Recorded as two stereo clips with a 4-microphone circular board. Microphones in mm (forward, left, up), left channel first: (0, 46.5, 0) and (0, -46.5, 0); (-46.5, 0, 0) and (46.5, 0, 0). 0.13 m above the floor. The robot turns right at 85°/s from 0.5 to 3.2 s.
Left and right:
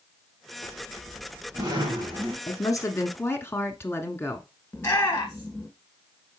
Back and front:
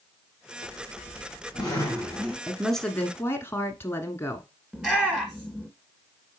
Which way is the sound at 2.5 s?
70° left.